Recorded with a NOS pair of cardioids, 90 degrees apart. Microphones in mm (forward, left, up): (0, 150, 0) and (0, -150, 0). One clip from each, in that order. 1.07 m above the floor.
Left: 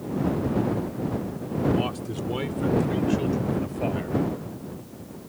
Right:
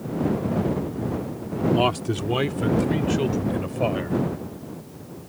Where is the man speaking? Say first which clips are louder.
Right 6 dB; 60° right; by 4.2 s 35° right.